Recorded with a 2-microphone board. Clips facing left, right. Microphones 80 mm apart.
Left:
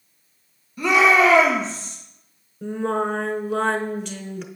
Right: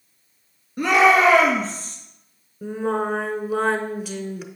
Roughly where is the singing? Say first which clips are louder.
Even; centre.